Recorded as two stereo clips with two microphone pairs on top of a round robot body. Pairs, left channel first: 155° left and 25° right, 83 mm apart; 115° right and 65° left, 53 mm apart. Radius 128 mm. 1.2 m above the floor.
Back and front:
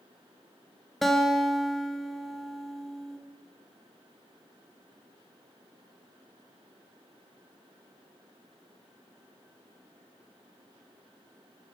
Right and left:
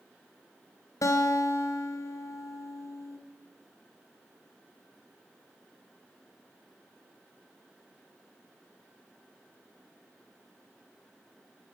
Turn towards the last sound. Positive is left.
turn(degrees=-115)